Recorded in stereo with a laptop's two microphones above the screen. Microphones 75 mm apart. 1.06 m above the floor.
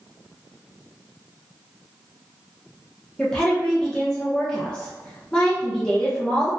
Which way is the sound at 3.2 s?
15° left (ahead or behind).